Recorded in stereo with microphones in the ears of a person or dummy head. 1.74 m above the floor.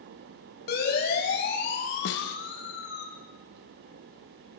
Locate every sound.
0.7 s a siren: 60° left (ahead or behind), 9.5 m; by 3.0 s 75° left (ahead or behind), 9.5 m
2.0 s a snare drum: 70° left (ahead or behind), 1.6 m